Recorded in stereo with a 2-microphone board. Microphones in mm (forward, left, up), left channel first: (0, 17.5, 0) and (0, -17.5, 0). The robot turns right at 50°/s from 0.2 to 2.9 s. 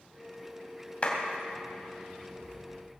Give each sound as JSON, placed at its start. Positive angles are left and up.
{"t": 1.0, "sound": "a clap", "side_deg": 40, "distance_m": 2.5}